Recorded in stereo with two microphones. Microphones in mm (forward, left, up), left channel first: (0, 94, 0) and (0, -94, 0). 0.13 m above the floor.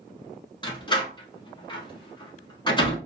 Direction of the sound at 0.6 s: 25° left (ahead or behind).